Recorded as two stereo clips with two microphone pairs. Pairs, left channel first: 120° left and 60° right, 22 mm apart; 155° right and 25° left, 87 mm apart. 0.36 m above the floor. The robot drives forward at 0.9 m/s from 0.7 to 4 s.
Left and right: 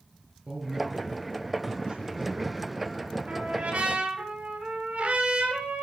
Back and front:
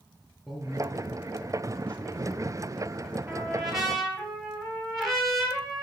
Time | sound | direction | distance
0.5 | a man speaking | 65° right | 5.5 m
3.3 | a trumpet | 55° right | 5.5 m